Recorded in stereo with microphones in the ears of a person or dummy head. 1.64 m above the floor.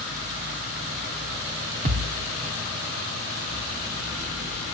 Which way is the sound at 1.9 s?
35° right (ahead or behind).